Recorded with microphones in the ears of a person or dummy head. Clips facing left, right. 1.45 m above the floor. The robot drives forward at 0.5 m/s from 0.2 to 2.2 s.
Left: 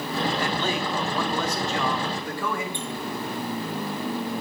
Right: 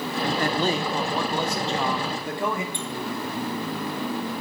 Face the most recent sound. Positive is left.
turn(degrees=-45)  # may be behind; listen again after turning